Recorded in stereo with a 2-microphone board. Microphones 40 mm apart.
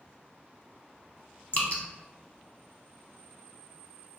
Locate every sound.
1.5 s dripping: 45° left (ahead or behind), 0.5 m